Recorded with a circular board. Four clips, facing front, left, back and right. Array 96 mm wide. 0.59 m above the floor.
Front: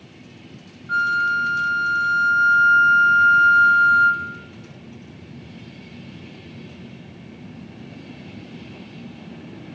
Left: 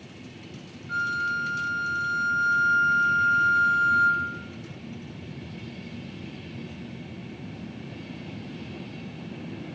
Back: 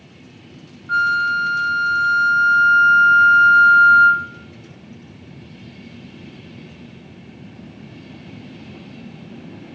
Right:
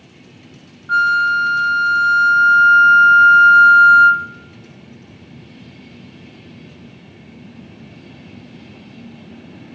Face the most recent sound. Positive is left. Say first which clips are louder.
# right 13 dB, back 2 dB
turn(degrees=-110)